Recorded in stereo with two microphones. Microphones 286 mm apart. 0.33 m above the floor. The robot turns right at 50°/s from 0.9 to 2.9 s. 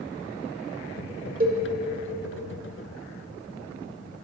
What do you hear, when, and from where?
1.4 s a cowbell: 30° right (ahead or behind), 1.0 m; by 1.6 s 25° right (ahead or behind), 1.0 m